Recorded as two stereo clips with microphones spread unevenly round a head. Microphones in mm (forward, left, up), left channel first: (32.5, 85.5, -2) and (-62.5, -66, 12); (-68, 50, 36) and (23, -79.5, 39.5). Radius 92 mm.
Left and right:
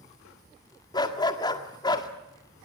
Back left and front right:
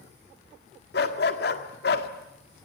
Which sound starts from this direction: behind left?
A dog barking, at 0.9 s.